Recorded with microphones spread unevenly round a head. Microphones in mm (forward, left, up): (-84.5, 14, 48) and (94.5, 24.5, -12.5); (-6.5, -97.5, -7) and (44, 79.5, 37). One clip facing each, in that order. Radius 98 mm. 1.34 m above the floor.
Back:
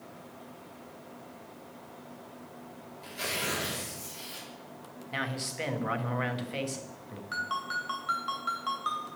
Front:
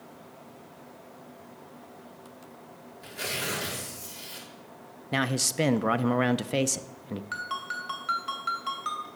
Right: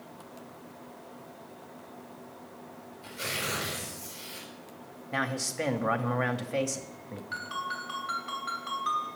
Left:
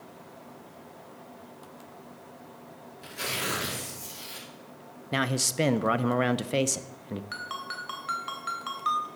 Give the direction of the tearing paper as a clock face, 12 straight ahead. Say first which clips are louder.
Front 1 dB, left 2 dB; 9 o'clock.